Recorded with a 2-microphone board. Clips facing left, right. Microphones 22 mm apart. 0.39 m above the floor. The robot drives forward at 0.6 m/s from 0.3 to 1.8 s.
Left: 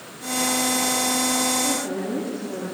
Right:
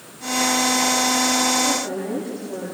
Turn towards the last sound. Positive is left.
turn(degrees=5)  # may be behind; listen again after turning